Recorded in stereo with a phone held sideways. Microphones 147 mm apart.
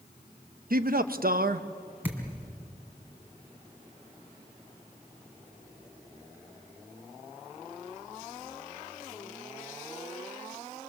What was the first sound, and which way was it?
A man speaking, 80° right.